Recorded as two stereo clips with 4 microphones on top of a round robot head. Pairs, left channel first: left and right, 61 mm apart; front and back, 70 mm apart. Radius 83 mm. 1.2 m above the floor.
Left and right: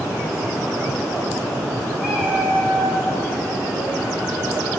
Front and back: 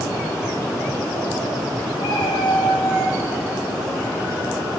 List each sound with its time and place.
2.0 s a cat meowing: 15° right, 1.3 m; by 3.2 s 65° right, 1.1 m